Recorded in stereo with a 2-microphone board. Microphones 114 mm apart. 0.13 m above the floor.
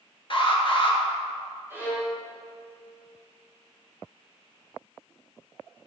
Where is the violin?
20° right (ahead or behind), 3.5 m.